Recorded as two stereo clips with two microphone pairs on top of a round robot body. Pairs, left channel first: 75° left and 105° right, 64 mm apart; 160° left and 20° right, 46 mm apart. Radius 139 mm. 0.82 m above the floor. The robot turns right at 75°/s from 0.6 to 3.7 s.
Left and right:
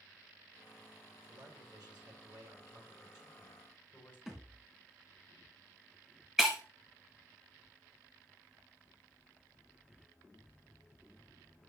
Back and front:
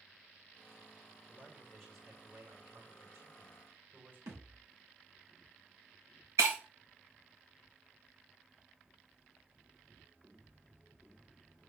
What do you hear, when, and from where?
1.3 s a man speaking: 165° right, 6 m; by 4.2 s 15° left, 6 m
4.3 s a thud: 20° right, 2.5 m
6.4 s breaking glass: 20° right, 1.3 m